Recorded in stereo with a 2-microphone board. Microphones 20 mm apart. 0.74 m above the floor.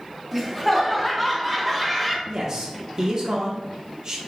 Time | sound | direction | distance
0.3 | laughter | 5° right (ahead or behind) | 1.0 m
2.3 | a man speaking | 35° right (ahead or behind) | 0.6 m